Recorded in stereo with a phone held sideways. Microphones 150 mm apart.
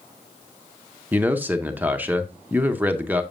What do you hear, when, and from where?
1.1 s a man speaking: 10° right (ahead or behind), 0.7 m